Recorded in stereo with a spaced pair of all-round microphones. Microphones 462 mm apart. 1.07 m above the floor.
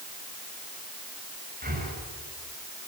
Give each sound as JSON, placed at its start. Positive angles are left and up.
{"t": 1.6, "sound": "breathing", "side_deg": -20, "distance_m": 6.0}